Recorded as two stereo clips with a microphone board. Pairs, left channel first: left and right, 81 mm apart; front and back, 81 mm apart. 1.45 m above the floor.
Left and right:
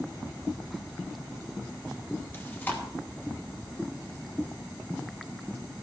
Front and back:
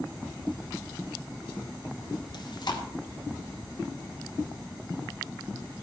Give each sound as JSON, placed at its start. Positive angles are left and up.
{"t": 2.3, "sound": "chewing", "azimuth_deg": 25, "distance_m": 2.0}